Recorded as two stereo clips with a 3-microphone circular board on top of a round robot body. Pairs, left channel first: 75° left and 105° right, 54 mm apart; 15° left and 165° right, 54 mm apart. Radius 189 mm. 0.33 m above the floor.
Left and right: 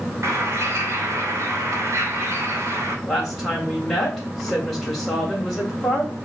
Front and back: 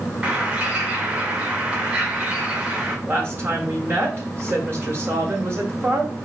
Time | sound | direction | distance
0.2 | a bird | 100° right | 2 m
3.1 | a woman speaking | 165° left | 2.5 m